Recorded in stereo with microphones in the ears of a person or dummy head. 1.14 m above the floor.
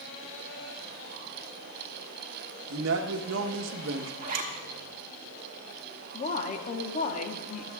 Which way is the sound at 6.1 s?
35° left (ahead or behind).